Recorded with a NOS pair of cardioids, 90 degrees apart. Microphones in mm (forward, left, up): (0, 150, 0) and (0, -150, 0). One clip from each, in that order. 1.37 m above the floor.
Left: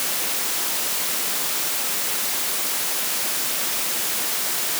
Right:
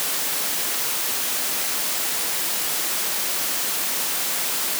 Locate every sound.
Only background noise.